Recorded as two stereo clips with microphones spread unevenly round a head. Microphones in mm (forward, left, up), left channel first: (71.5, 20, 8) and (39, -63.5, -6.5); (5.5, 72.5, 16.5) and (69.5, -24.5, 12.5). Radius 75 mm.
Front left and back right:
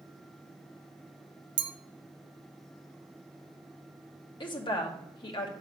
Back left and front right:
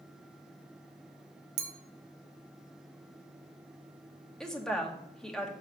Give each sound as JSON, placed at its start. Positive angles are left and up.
{"t": 1.6, "sound": "a clink", "azimuth_deg": -85, "distance_m": 0.8}
{"t": 4.4, "sound": "a woman speaking", "azimuth_deg": 40, "distance_m": 1.9}